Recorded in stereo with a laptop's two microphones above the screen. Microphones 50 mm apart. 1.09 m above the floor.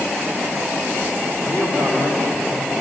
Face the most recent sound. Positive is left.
turn(degrees=75)  # may be behind; listen again after turning